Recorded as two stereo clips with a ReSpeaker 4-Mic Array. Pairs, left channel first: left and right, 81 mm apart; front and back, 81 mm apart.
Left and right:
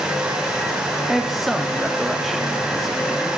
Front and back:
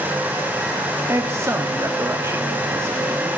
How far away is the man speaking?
About 0.9 m.